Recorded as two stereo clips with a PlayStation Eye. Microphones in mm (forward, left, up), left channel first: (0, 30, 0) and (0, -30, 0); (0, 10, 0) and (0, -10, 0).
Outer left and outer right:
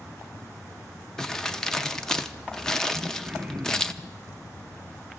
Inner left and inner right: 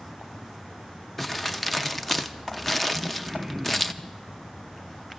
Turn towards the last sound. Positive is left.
turn(degrees=-10)  # may be behind; listen again after turning